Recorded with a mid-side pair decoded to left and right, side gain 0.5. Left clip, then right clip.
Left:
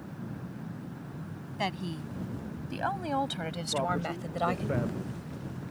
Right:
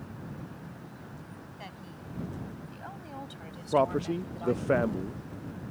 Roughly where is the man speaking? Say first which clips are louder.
Right 6 dB; ahead right.